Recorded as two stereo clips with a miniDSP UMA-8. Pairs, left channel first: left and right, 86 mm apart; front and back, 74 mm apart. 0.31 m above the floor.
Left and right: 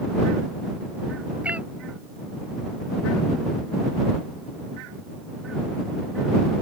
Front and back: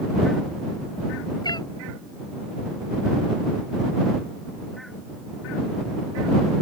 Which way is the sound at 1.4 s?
15° right.